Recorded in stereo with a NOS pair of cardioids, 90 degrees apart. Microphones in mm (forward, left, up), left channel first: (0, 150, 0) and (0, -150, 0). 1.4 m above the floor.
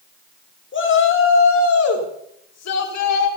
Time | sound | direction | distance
0.7 | a shout | 40° left | 5 m